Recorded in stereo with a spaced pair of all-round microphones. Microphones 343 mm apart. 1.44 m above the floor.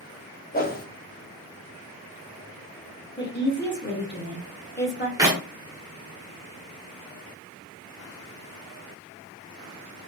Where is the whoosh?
25° left (ahead or behind), 0.5 m.